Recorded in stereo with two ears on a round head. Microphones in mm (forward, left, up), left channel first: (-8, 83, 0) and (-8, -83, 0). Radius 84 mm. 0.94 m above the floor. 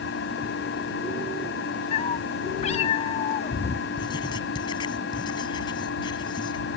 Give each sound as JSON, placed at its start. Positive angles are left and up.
{"t": 0.0, "sound": "an engine running", "side_deg": 70}
{"t": 1.9, "sound": "a cat meowing", "side_deg": 35}
{"t": 4.0, "sound": "writing", "side_deg": 25}